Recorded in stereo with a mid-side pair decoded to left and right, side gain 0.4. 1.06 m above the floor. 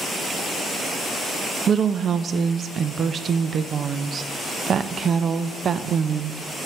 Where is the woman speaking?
55° right, 0.6 m.